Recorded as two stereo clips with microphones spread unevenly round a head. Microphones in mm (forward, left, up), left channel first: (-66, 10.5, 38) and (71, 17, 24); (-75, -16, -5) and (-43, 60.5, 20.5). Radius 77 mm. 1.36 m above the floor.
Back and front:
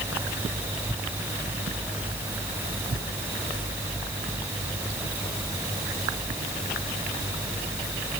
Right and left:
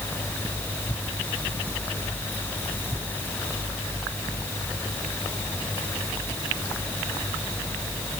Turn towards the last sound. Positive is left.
No sound to turn to.